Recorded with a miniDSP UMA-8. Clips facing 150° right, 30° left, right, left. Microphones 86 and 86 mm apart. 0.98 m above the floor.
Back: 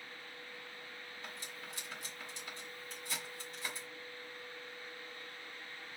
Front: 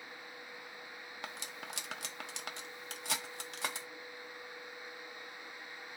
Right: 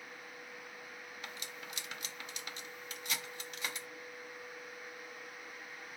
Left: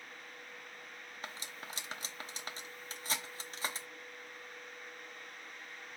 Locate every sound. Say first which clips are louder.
1.2 s cutlery clinking: front 5 dB, left 3 dB; 35° left, 0.7 m